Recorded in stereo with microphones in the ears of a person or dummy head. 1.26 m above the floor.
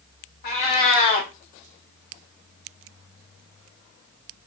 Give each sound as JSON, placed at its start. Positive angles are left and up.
{"t": 0.4, "sound": "a cat meowing", "side_deg": 35, "distance_m": 0.5}